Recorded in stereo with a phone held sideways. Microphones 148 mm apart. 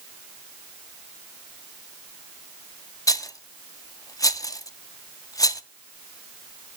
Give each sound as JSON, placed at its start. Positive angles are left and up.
{"t": 3.1, "sound": "a rattle", "side_deg": 25, "distance_m": 0.5}